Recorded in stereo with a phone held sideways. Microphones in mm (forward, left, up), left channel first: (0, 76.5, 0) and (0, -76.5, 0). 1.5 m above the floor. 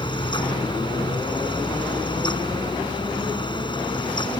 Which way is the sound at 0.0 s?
30° left (ahead or behind).